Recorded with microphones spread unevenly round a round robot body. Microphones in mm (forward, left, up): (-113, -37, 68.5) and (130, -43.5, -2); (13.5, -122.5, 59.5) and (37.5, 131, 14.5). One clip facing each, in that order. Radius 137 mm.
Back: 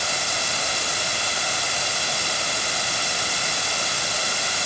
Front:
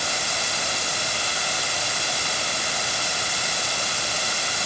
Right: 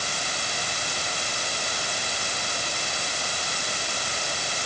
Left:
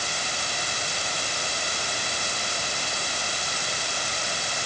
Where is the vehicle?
I don't hear a vehicle.